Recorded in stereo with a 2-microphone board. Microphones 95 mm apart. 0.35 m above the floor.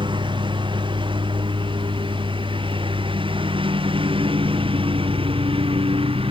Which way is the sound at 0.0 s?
60° right (ahead or behind).